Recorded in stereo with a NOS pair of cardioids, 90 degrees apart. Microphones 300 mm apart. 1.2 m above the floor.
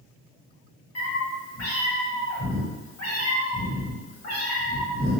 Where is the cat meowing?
60° left, 1.9 m.